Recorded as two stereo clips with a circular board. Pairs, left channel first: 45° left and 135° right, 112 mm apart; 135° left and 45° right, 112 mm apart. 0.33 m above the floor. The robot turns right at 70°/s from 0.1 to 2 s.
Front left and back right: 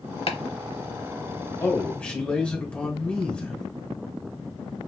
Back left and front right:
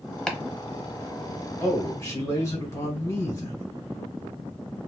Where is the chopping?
55° left, 0.8 m; by 0.4 s 60° left, 0.8 m.